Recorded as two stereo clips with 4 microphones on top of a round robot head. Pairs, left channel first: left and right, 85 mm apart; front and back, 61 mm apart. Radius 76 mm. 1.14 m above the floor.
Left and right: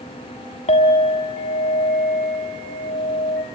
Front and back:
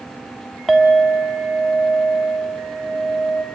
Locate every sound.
0.7 s a clink: 95° left, 1.6 m